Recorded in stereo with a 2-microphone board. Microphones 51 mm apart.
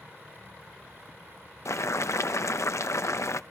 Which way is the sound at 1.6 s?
75° left (ahead or behind).